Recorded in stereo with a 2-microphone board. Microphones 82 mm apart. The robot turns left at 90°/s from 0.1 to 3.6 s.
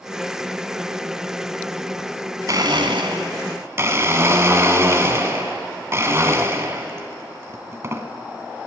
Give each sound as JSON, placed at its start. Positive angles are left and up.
{"t": 2.5, "sound": "a blender", "azimuth_deg": -45, "distance_m": 1.0}